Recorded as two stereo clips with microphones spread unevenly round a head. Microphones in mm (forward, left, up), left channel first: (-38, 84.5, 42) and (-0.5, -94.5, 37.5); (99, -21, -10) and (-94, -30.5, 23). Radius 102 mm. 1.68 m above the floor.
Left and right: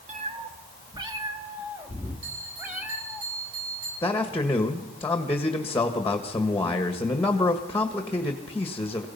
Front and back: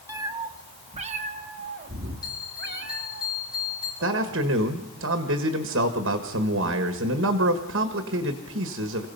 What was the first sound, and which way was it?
A cat meowing, 120° right.